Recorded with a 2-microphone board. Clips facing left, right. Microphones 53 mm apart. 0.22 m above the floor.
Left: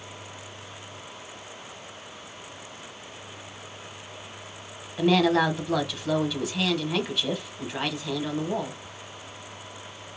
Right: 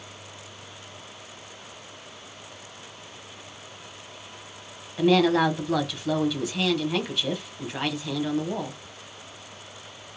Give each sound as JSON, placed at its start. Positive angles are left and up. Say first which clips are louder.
{"t": 5.0, "sound": "a woman speaking", "louder": "right 1 dB", "side_deg": 0, "distance_m": 1.1}